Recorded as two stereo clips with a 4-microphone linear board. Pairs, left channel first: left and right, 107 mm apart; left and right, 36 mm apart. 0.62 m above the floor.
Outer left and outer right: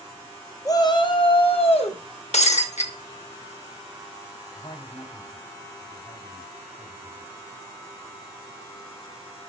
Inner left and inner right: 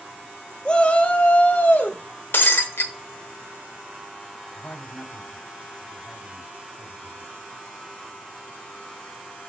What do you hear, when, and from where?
0.7 s a shout: 30° left (ahead or behind), 0.7 m; by 2.0 s 60° left (ahead or behind), 1.4 m
2.3 s breaking glass: 75° left (ahead or behind), 0.9 m
4.6 s a man speaking: 55° left (ahead or behind), 1.8 m